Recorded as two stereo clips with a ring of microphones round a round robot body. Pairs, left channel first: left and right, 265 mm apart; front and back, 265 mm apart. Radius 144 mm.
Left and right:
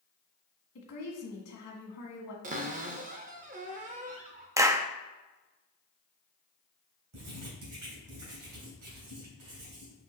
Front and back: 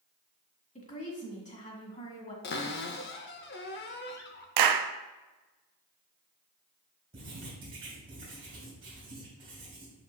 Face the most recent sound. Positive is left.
turn(degrees=-105)